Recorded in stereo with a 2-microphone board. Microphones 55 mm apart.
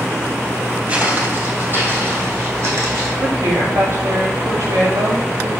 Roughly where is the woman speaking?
Right.